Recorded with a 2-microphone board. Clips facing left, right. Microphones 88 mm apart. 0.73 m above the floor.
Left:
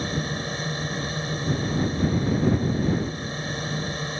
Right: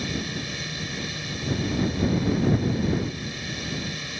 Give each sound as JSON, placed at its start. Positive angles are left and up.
{"t": 0.0, "sound": "a drone", "side_deg": 35}